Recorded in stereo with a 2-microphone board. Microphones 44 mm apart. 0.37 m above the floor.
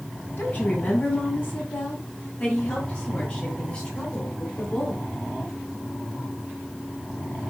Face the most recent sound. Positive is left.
turn(degrees=25)  # may be behind; listen again after turning